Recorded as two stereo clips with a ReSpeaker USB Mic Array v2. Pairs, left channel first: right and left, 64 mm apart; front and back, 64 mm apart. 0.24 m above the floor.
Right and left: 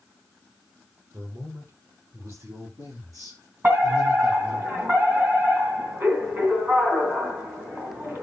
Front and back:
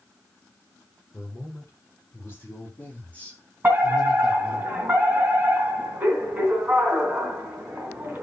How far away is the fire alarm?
About 3 m.